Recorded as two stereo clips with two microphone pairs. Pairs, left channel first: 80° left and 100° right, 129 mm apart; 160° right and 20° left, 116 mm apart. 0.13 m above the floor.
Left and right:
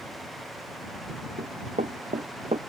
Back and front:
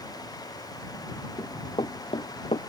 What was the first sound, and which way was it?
Running footsteps, 115° right.